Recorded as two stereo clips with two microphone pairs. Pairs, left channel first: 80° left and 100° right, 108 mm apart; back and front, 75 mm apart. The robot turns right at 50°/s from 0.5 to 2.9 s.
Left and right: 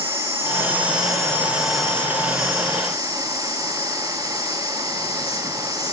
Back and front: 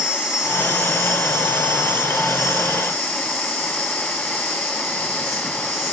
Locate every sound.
0.0 s an insect: 75° right, 2.5 m; by 5.9 s 45° left, 2.5 m